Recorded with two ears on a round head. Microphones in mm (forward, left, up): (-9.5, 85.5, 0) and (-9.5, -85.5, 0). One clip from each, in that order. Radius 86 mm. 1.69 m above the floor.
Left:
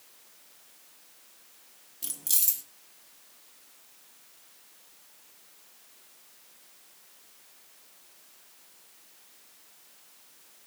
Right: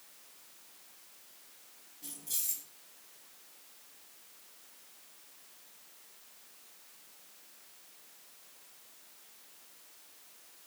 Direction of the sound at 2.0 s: 70° left (ahead or behind).